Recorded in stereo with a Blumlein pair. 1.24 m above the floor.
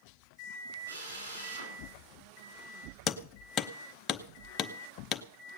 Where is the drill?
65° right, 8 m.